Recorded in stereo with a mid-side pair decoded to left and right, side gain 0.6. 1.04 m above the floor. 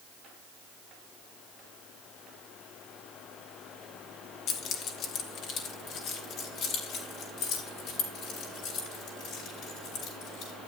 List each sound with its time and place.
4.5 s keys jangling: 60° left, 1.3 m; by 10.5 s 70° left, 4.5 m